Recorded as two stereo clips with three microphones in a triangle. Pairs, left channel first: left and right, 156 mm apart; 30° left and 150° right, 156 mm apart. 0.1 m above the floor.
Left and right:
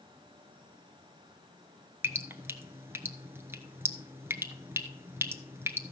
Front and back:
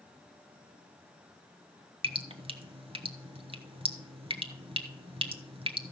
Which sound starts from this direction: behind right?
Dripping, at 2.0 s.